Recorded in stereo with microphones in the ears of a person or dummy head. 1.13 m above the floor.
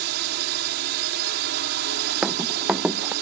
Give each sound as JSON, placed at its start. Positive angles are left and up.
{"t": 0.0, "sound": "a drone", "side_deg": -50}
{"t": 2.2, "sound": "running footsteps", "side_deg": 0}